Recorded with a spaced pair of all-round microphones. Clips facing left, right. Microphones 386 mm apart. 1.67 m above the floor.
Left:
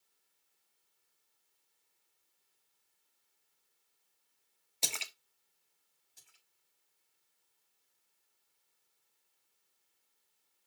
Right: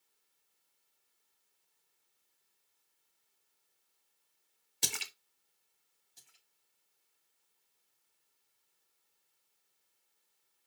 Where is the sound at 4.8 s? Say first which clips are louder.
Right 1 dB; 25° right (ahead or behind), 1.1 m.